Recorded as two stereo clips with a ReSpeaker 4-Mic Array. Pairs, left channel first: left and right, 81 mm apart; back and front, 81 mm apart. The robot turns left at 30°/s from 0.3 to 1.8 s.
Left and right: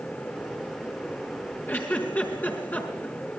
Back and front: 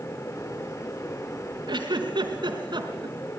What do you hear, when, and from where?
1.7 s a giggle: 25° left, 4.5 m; by 3.2 s 20° left, 4.5 m